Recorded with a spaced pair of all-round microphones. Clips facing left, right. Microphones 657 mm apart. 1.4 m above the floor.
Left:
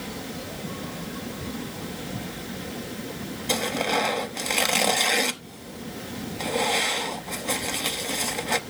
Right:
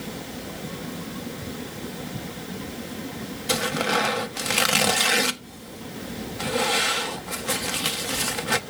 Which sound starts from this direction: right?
Tearing paper, at 3.5 s.